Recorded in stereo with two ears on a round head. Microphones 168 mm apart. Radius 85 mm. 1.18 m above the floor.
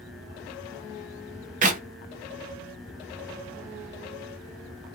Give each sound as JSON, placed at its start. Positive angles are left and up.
{"t": 1.6, "sound": "a clap", "side_deg": -40, "distance_m": 0.7}